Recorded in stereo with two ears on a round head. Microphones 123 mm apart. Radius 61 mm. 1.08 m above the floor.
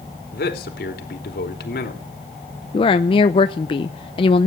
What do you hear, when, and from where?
0.3 s a man speaking: 80° left, 3 m
2.7 s a woman speaking: 40° left (ahead or behind), 0.6 m